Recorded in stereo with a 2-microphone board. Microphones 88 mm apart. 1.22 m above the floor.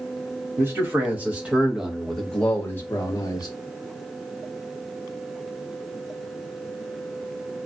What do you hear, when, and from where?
0.6 s a man speaking: 25° right (ahead or behind), 1.5 m; by 3.5 s 45° left (ahead or behind), 1.0 m